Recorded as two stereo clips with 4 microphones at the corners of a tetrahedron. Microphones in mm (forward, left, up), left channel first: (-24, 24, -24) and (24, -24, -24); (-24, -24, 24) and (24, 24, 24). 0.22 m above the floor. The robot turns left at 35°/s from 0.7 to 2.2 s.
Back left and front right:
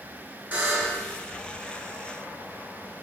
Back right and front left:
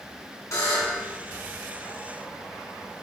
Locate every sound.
0.5 s a buzzer: 100° right, 2.5 m; by 1.0 s 115° right, 2.5 m